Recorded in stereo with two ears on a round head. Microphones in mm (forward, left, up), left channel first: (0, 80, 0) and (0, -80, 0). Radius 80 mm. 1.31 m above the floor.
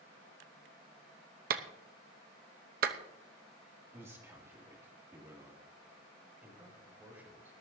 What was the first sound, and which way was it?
A clap, 55° right (ahead or behind).